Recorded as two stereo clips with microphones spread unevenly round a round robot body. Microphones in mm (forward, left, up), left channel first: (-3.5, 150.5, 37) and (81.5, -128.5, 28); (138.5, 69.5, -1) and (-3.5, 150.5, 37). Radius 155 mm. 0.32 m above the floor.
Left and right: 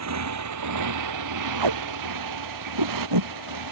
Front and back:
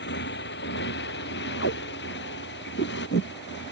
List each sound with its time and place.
0.0 s a motorcycle: 40° right; by 3.7 s 60° right
1.6 s tape being pulled: 65° right